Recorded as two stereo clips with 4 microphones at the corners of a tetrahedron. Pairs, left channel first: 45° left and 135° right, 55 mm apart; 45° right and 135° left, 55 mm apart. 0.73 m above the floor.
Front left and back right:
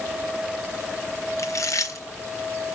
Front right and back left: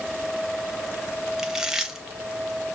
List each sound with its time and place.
1.4 s chewing: 50° left, 1.5 m